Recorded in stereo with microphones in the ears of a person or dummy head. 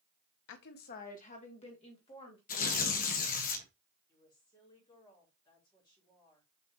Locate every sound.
0.5 s a woman speaking: 65° left (ahead or behind), 1.2 m; by 2.4 s 25° left (ahead or behind), 3.5 m
2.5 s tearing paper: 45° left (ahead or behind), 1.4 m
4.1 s a woman speaking: 20° left (ahead or behind), 5 m